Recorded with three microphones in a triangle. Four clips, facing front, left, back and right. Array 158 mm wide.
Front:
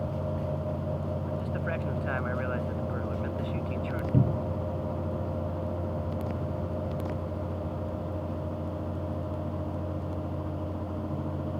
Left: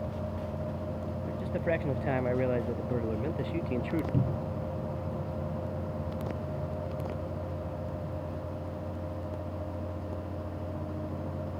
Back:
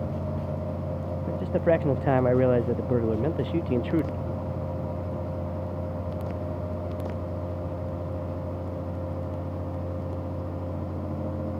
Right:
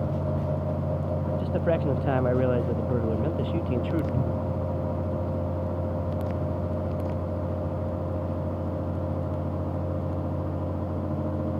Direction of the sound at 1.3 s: 160° right.